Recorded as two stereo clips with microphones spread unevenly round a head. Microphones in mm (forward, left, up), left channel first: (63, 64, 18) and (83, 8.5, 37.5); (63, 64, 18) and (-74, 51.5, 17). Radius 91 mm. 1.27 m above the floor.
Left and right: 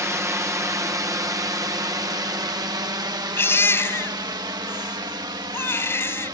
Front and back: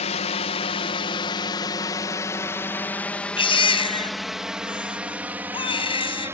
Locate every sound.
0.0 s a drone: 25° right; by 6.3 s 100° right
3.4 s a baby crying: 55° left